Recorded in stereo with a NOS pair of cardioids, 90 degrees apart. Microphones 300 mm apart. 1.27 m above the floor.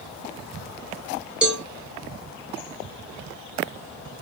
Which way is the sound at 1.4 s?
5° right.